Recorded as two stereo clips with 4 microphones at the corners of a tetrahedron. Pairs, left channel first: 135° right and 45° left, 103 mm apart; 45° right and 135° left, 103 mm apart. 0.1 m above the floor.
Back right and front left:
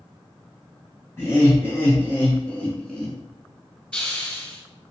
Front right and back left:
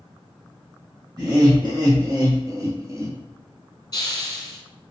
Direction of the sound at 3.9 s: 65° right.